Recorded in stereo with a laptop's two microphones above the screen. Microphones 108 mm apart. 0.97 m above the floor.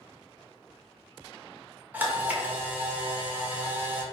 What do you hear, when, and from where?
1.9 s a camera shutter: 20° right (ahead or behind), 0.7 m